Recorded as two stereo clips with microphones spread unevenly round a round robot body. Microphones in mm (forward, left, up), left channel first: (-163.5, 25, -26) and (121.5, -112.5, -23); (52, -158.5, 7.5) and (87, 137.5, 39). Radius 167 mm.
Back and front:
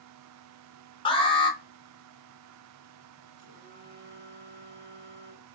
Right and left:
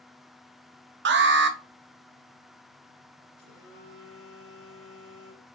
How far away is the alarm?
About 0.6 m.